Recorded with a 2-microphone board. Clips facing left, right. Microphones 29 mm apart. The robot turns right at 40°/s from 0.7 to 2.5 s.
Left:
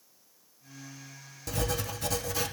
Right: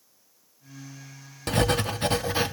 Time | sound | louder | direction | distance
1.5 | writing | right 8 dB | 80° right | 0.7 m